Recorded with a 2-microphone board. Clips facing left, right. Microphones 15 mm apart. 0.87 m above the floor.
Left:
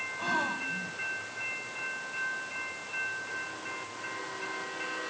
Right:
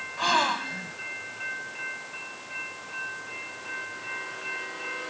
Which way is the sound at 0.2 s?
65° right (ahead or behind).